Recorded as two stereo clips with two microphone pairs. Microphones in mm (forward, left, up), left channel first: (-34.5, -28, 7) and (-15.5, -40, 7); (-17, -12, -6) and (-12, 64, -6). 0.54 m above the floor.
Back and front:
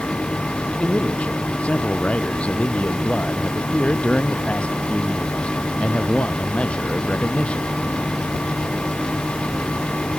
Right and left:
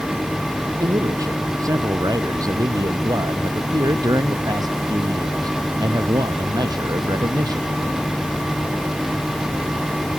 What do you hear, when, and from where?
0.8 s a man speaking: 130° left; by 7.7 s 115° left